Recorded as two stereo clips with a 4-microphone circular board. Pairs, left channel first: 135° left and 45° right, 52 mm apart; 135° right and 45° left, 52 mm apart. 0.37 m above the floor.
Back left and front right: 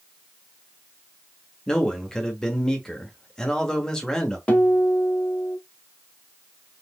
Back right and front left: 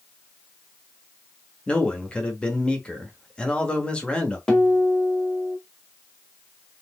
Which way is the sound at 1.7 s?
165° right.